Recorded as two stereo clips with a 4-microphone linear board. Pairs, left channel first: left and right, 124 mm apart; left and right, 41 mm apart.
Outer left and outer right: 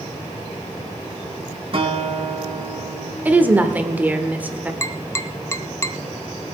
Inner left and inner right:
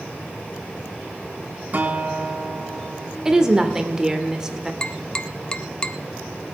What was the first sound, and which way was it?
A guitar, 45° right (ahead or behind).